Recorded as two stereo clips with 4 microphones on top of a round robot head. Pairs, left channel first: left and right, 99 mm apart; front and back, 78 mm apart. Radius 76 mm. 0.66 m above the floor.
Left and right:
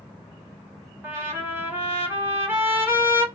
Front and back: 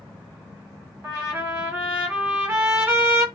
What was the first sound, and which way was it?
A trumpet, 135° right.